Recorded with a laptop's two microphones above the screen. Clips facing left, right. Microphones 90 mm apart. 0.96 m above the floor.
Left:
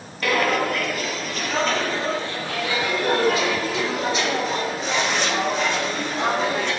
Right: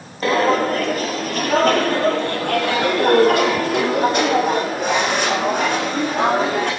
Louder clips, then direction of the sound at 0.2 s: Right 4 dB; 30° right (ahead or behind).